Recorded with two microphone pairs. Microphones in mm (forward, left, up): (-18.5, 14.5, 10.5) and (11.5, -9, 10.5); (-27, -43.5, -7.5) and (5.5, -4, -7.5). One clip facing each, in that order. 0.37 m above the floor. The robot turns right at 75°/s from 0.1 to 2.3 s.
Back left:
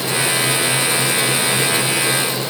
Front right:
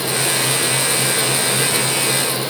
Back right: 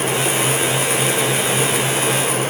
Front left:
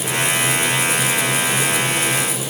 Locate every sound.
Only background noise.